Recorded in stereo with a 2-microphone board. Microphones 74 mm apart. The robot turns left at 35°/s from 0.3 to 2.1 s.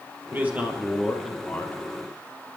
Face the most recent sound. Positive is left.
turn(degrees=145)